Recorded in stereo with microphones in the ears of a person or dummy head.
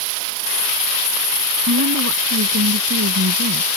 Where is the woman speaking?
60° right (ahead or behind); by 3.7 s 55° right (ahead or behind).